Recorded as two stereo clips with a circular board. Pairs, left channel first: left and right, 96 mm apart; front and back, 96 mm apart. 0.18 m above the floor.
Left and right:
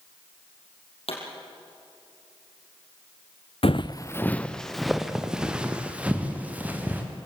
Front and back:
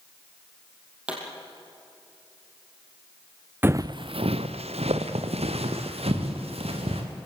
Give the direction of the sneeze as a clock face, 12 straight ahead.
I don't hear a sneeze.